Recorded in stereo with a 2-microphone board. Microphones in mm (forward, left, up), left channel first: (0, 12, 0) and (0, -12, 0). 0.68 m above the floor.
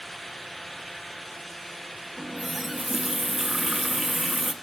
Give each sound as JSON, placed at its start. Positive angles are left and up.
{"t": 2.2, "sound": "a running tap", "side_deg": -10, "distance_m": 0.5}